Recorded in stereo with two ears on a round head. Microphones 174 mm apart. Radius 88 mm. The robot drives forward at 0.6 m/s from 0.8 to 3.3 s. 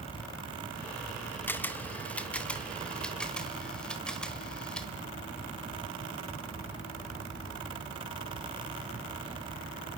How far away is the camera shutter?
About 0.9 m.